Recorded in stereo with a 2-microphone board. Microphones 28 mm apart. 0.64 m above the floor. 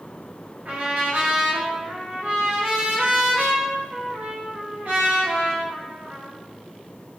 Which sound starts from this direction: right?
A trumpet, at 0.7 s.